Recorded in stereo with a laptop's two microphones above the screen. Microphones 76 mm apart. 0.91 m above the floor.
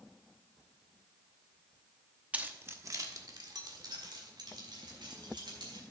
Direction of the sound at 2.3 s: 20° right (ahead or behind).